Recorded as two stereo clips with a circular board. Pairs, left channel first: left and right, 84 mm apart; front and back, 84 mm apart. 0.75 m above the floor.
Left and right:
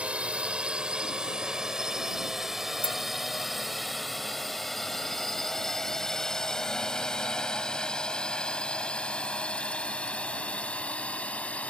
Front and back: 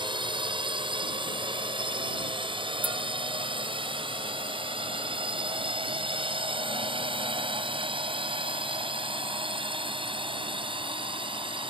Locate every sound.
0.0 s a drone: 165° right; by 11.7 s 165° left
2.8 s a clink: 110° left